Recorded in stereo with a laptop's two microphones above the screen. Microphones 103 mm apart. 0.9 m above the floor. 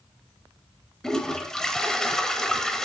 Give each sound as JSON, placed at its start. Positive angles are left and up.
{"t": 1.0, "sound": "a toilet flushing", "side_deg": 5, "distance_m": 0.8}